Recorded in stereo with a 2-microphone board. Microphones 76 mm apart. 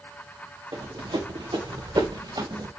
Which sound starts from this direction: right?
Running footsteps, at 0.7 s.